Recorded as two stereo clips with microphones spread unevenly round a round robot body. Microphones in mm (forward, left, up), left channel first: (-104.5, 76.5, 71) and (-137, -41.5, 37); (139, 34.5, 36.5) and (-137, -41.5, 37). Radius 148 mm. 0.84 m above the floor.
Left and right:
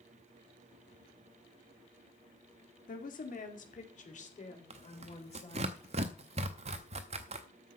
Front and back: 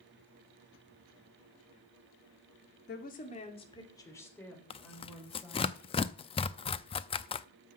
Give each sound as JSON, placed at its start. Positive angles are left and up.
{"t": 2.9, "sound": "a woman speaking", "azimuth_deg": 70, "distance_m": 2.5}
{"t": 4.7, "sound": "tearing paper", "azimuth_deg": -55, "distance_m": 0.5}